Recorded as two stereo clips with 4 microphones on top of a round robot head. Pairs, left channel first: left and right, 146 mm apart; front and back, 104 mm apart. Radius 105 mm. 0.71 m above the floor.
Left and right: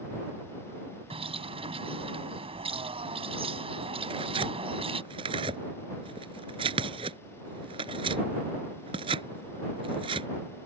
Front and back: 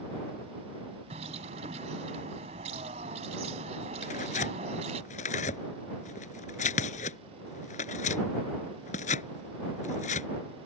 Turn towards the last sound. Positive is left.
turn(degrees=-25)